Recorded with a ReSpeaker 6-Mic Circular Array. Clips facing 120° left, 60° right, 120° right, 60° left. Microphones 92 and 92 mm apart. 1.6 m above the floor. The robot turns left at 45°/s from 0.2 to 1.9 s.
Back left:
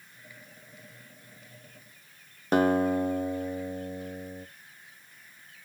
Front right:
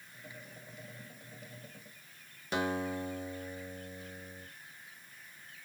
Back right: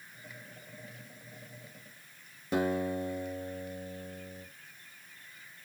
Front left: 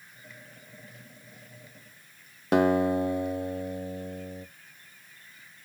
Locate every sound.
2.5 s a guitar: 80° left, 0.5 m